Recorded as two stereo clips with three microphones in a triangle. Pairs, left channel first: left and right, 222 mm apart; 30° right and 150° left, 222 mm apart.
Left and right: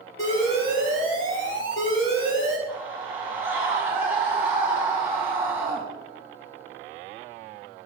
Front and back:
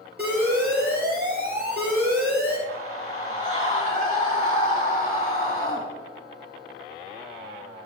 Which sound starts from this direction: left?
An alarm, at 0.2 s.